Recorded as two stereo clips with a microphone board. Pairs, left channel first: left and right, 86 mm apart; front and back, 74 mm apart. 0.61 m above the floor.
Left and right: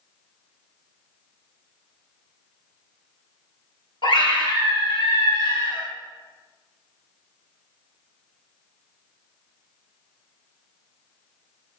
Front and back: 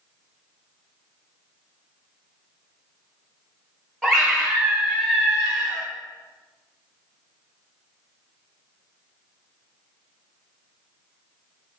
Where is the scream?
90° left, 3 m; by 5.8 s 85° left, 6 m.